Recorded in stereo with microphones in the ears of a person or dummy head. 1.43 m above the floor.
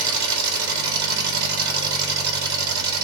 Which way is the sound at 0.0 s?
70° right (ahead or behind).